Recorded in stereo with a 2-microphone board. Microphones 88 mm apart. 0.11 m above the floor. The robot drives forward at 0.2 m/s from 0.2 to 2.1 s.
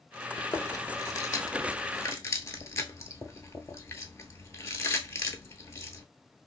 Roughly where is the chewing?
Left.